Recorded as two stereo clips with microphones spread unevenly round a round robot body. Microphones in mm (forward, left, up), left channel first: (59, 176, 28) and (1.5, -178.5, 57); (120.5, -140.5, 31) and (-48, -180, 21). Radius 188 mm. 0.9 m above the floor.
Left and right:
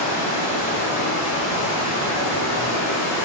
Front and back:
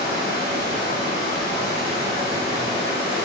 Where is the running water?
175° left, 0.9 m.